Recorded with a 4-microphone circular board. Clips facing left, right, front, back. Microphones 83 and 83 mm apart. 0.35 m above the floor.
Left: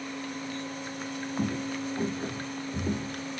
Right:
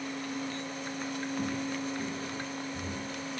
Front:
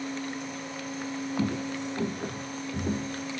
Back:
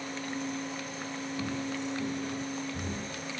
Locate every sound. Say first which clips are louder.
1.4 s footsteps: left 5 dB, front 4 dB; 25° left, 3.5 m; by 3.2 s 50° left, 4 m